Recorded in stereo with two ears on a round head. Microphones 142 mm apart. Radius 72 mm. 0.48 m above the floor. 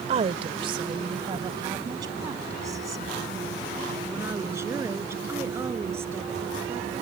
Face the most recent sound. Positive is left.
turn(degrees=-15)  # may be behind; listen again after turning